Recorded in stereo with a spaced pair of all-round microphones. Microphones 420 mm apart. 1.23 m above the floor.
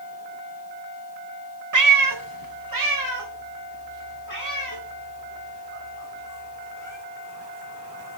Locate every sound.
1.7 s a cat meowing: 45° right (ahead or behind), 0.6 m; by 7.0 s 40° right (ahead or behind), 3.5 m